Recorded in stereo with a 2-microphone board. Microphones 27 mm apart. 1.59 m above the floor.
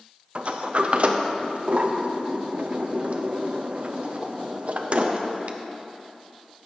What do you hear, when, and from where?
0.3 s a sliding door: 50° right (ahead or behind), 0.6 m